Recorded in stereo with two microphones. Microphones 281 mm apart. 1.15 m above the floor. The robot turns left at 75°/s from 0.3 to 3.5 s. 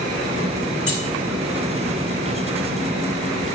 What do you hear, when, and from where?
0.9 s keys jangling: 55° left (ahead or behind), 4 m; by 1.0 s 45° left (ahead or behind), 4 m